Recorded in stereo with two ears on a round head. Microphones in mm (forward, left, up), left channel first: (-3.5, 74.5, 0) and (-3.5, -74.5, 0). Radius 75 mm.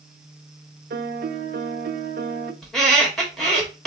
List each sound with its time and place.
0.9 s a piano: 55° right (ahead or behind), 0.6 m
2.6 s a squeak: 5° left (ahead or behind), 1.5 m